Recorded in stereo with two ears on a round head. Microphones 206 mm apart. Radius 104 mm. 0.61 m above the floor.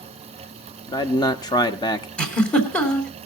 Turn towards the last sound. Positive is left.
turn(degrees=5)  # may be behind; listen again after turning